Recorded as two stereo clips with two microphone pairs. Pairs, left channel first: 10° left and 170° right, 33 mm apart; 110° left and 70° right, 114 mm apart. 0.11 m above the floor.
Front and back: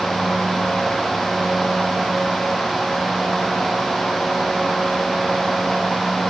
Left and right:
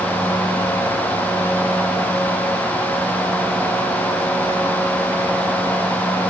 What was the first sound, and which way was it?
Only background noise.